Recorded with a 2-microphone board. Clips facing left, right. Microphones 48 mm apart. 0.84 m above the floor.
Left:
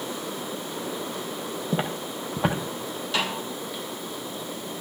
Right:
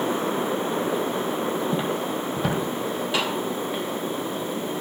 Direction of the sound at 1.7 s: 30° left (ahead or behind).